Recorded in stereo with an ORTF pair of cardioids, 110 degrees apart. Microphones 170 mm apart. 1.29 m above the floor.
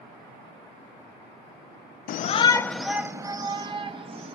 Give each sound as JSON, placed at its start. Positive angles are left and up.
{"t": 2.1, "sound": "a shout", "azimuth_deg": 55, "distance_m": 0.5}